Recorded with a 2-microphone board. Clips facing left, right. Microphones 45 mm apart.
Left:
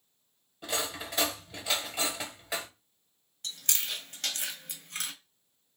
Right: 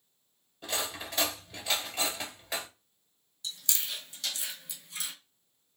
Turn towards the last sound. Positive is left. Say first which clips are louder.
# left 2 dB
turn(degrees=50)  # may be behind; listen again after turning